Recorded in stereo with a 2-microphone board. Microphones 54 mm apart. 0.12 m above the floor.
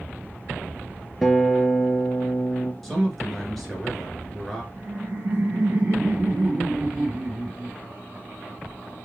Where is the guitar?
Centre (ahead or behind), 0.5 m.